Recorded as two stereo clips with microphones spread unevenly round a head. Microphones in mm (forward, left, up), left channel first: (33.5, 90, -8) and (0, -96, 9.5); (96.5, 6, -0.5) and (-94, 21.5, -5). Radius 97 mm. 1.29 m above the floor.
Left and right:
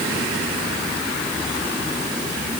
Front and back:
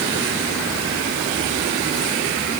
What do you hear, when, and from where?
Only background noise.